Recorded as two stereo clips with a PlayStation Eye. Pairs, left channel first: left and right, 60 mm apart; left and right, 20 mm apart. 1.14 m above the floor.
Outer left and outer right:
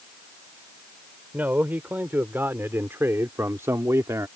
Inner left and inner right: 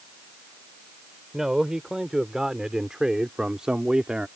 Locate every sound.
1.3 s a man speaking: 30° right (ahead or behind); by 4.3 s 60° right (ahead or behind)